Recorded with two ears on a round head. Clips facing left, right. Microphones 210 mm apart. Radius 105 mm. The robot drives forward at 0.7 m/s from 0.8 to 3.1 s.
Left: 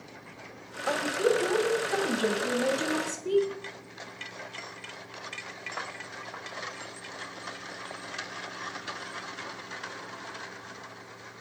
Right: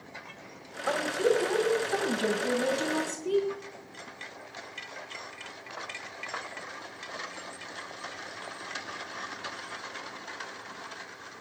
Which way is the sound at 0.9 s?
Centre (ahead or behind).